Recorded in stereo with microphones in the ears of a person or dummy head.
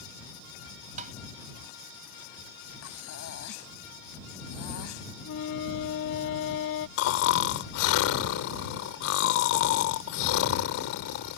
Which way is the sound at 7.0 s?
70° left (ahead or behind).